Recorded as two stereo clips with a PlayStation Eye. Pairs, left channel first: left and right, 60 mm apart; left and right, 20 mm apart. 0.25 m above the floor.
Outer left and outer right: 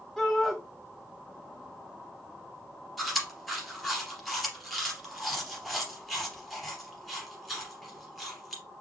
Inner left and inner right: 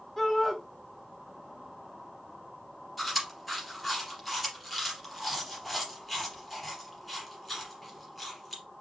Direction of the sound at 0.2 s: Centre (ahead or behind).